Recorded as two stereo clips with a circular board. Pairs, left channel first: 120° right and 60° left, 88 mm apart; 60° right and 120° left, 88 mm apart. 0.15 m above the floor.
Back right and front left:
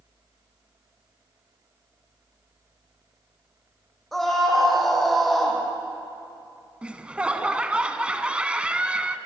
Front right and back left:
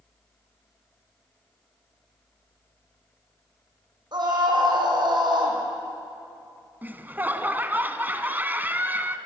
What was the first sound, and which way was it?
A scream, 150° left.